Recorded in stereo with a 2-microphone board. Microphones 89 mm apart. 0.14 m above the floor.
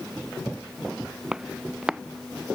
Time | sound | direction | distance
1.3 | footsteps | 10° right (ahead or behind) | ?